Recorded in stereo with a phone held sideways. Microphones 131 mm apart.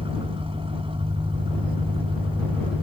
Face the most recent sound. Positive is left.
turn(degrees=-40)  # may be behind; listen again after turning